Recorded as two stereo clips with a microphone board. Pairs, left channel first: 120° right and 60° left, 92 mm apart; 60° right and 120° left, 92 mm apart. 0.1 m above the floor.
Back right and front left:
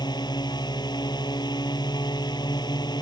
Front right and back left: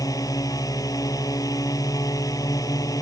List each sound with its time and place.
0.0 s a drone: 100° right